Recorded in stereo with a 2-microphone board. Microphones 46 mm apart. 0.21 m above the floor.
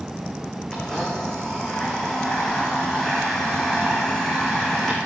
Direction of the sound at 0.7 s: 15° left (ahead or behind).